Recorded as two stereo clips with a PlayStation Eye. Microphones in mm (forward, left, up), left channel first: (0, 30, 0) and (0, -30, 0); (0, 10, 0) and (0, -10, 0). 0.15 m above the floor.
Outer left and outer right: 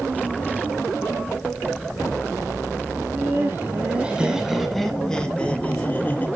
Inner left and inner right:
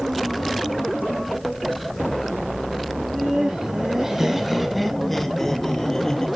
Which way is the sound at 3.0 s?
40° right (ahead or behind).